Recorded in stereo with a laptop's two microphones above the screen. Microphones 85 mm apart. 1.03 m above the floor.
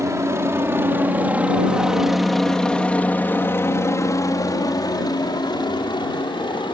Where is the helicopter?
35° right (ahead or behind); by 6.8 s 65° left (ahead or behind).